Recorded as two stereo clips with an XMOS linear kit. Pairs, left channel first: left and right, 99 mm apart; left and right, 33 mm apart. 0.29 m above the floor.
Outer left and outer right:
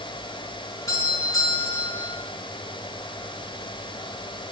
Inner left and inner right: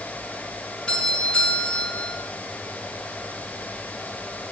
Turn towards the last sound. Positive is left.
turn(degrees=35)  # may be behind; listen again after turning